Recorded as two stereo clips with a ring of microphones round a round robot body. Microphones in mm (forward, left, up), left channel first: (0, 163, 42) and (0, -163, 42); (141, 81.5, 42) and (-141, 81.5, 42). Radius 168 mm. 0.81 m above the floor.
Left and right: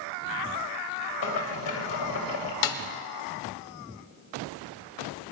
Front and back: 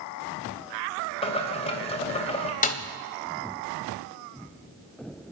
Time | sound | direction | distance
1.2 | boiling | 70° left | 2.5 m
2.6 | a snare drum | 60° left | 1.7 m